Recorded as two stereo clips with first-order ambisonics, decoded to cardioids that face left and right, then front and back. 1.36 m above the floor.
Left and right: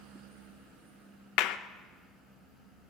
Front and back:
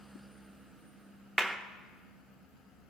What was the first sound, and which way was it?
A clap, 95° left.